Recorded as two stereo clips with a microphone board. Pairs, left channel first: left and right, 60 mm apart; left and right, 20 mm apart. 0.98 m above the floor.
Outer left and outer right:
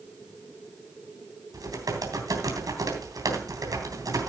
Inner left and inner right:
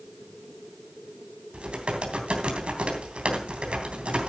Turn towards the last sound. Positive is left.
turn(degrees=-80)